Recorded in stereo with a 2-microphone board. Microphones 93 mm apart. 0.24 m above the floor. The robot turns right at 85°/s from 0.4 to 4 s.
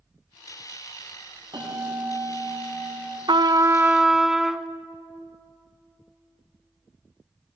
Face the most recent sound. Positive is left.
turn(degrees=-5)